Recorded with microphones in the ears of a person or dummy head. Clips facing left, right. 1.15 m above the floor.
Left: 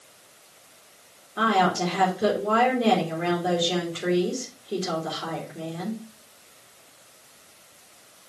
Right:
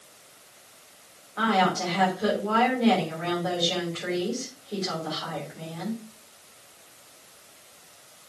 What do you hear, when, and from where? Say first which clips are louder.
1.4 s a woman speaking: left 2 dB; 40° left (ahead or behind), 3.5 m